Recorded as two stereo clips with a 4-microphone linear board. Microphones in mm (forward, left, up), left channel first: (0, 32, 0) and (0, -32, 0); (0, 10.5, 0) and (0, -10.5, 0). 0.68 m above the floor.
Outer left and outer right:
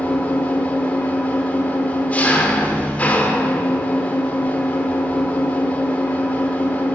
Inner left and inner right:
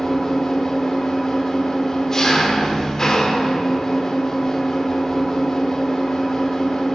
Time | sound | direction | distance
0.0 | an engine running | 25° left (ahead or behind) | 0.8 m